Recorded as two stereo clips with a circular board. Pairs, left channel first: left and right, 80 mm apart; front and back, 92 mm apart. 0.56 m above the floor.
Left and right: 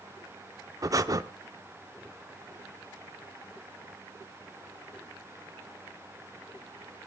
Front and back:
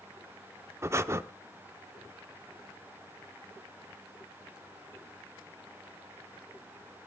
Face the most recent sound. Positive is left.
turn(degrees=-125)